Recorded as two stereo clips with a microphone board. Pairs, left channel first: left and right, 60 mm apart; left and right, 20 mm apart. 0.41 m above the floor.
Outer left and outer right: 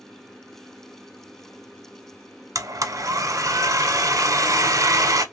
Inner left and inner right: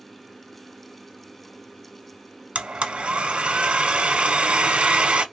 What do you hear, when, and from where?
2.5 s a blender: 70° right (ahead or behind), 0.5 m